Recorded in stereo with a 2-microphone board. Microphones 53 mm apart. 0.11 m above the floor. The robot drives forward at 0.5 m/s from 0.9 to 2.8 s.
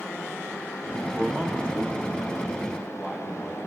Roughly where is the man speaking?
Centre.